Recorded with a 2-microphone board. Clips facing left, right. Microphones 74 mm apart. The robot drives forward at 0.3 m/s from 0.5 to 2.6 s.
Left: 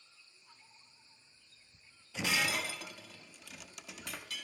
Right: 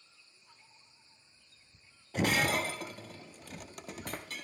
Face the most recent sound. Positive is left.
turn(degrees=-45)  # may be behind; listen again after turning